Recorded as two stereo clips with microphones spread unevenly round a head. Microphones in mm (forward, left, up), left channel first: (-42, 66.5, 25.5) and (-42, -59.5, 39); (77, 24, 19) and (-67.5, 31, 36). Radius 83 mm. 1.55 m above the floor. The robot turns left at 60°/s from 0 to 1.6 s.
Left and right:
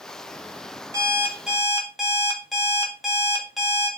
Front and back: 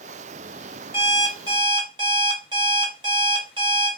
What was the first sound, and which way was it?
An alarm clock, 130° right.